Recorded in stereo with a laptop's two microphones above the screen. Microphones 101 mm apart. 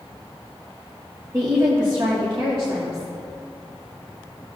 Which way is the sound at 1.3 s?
30° right (ahead or behind).